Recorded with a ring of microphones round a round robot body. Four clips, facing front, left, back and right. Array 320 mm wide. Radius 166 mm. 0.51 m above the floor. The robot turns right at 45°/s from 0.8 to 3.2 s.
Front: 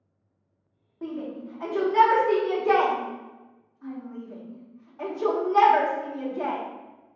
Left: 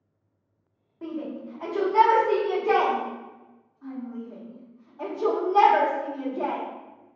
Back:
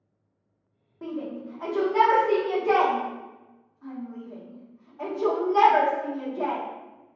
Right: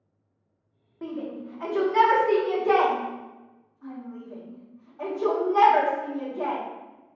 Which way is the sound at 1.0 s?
100° right.